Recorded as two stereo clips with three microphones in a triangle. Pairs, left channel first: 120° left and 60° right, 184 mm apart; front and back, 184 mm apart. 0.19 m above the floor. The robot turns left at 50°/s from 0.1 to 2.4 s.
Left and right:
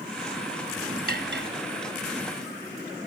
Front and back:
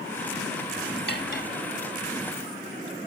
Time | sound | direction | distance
1.1 | cutlery clinking | 25° right | 2 m